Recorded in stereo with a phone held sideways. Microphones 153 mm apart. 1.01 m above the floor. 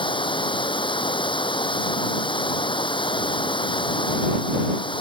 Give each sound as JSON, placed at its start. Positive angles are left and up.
{"t": 0.0, "sound": "running water", "side_deg": 30}